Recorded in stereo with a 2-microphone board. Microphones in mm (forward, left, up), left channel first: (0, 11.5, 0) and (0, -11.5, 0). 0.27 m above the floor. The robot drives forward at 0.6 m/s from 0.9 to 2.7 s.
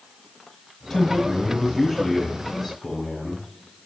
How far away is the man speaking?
About 1.7 m.